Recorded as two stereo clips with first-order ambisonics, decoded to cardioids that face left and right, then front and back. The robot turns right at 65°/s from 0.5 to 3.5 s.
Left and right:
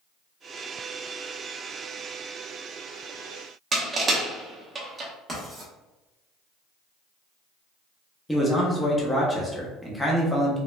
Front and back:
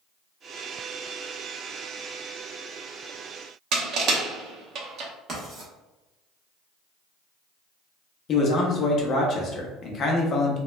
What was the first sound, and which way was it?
Crushing, 155° right.